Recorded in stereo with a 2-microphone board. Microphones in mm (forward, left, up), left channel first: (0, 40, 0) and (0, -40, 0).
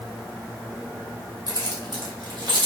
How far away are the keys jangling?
About 1.2 m.